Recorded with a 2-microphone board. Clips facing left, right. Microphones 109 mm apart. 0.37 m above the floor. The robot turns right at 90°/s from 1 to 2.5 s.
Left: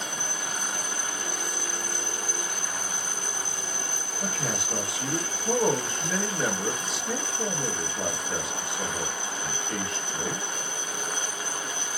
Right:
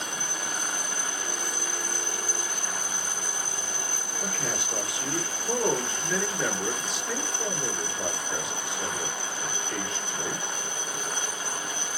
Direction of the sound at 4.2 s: 35° left (ahead or behind).